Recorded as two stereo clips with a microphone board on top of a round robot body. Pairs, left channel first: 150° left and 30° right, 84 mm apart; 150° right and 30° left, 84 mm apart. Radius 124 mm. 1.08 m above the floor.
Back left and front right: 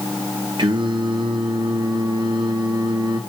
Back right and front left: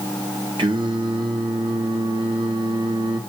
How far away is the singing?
About 2 m.